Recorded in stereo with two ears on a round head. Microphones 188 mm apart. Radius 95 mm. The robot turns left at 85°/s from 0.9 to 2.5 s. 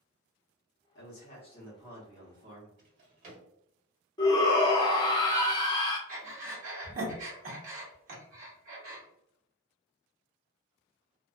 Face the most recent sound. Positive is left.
turn(degrees=-40)  # may be behind; listen again after turning